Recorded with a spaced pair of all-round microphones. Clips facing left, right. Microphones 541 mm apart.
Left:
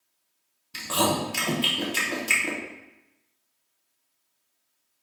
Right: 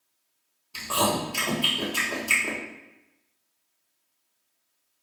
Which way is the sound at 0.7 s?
45° left (ahead or behind).